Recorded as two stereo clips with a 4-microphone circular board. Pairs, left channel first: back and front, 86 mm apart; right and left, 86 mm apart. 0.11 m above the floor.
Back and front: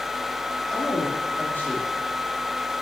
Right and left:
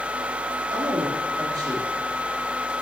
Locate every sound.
0.7 s a woman speaking: 105° left, 4.5 m; by 2.7 s 135° left, 3.5 m